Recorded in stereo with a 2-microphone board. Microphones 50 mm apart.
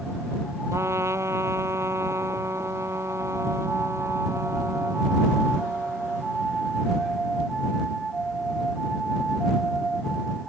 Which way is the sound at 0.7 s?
70° right (ahead or behind).